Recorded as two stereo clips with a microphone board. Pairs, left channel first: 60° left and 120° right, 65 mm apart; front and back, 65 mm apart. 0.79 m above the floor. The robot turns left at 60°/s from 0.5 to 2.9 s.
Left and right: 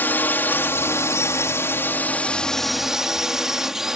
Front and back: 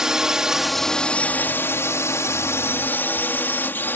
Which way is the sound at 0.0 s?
100° left.